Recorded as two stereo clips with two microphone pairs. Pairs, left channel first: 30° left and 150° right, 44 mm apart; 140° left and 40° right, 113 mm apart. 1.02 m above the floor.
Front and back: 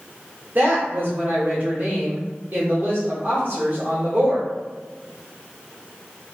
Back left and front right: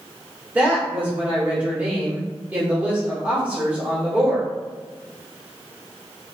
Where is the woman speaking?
115° right, 1.4 m.